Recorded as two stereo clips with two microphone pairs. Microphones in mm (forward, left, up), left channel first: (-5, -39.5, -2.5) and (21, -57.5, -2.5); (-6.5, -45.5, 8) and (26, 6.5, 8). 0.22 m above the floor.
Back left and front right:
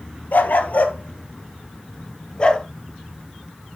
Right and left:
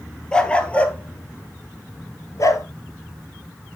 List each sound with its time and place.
0.3 s a dog barking: 160° left, 1.9 m; by 2.6 s 150° right, 2.0 m